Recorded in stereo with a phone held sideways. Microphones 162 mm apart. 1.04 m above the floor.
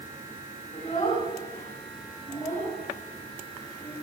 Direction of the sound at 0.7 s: 40° left (ahead or behind).